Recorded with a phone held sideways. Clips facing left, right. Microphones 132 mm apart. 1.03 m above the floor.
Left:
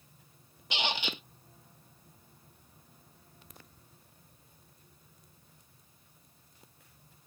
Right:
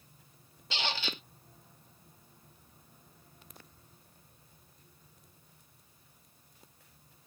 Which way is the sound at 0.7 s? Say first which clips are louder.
Left 2 dB; 15° left (ahead or behind).